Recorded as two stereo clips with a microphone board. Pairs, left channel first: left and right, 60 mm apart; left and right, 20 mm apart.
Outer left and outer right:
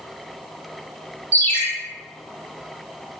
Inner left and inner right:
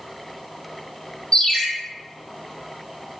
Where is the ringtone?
40° left (ahead or behind), 0.6 m.